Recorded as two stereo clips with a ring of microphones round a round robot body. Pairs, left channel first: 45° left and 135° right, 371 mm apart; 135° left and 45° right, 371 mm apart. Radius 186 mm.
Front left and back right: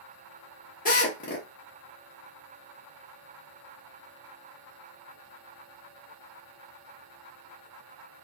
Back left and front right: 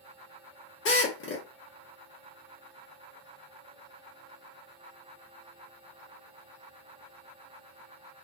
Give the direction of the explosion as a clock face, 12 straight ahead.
I don't hear an explosion.